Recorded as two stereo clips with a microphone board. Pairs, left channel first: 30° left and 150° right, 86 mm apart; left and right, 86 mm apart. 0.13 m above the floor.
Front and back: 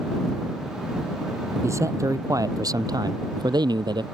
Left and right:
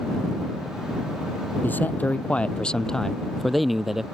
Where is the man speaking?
155° left; by 4.0 s 175° right.